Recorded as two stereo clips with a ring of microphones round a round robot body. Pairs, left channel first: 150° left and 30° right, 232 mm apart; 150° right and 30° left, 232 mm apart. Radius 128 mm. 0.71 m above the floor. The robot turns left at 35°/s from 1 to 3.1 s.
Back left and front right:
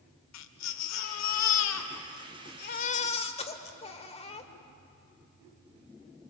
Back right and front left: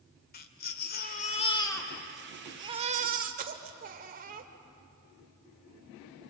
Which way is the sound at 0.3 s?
160° left.